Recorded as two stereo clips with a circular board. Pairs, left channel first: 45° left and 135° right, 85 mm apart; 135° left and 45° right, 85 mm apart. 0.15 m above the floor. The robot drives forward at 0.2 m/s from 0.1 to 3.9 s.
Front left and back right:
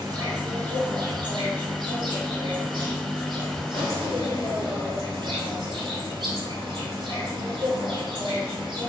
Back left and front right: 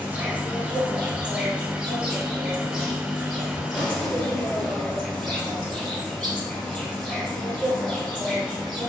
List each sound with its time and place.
0.0 s an insect: 115° right, 1.5 m; by 8.9 s 135° right, 1.9 m